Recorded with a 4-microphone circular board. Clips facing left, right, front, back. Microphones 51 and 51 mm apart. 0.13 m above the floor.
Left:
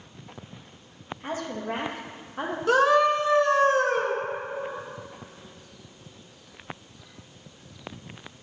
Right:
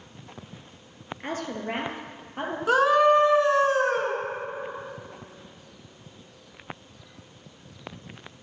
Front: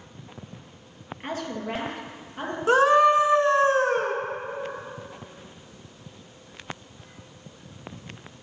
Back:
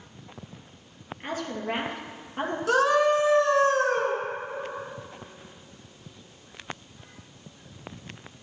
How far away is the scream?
About 1.3 m.